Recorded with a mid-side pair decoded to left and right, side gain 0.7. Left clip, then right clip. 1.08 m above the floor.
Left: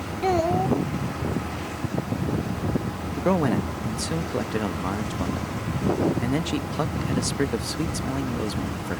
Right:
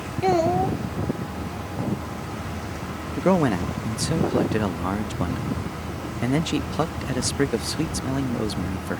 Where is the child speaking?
10° right.